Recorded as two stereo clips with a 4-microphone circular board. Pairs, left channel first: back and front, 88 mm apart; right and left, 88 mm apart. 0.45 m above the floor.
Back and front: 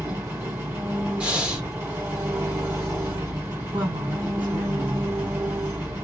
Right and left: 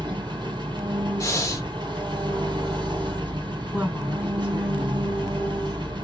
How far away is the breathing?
About 1.0 m.